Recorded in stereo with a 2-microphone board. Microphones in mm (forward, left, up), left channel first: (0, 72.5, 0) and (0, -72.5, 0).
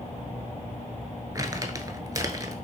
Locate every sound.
1.4 s crumpling: 25° right (ahead or behind), 0.6 m